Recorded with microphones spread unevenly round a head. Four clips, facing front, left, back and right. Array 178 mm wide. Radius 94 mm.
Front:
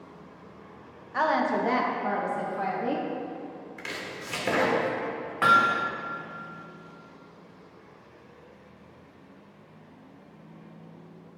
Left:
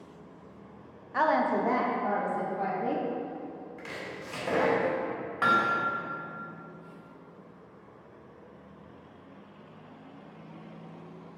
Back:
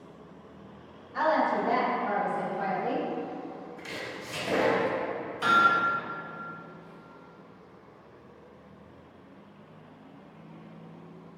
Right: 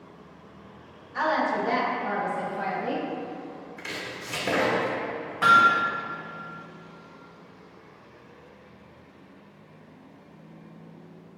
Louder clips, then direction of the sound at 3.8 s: Right 3 dB, front 1 dB; 45° right.